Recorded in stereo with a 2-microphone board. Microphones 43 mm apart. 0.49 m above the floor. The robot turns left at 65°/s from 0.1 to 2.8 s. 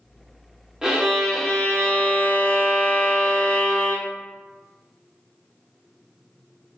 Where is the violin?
160° right, 0.7 m; by 4.1 s 70° left, 0.7 m.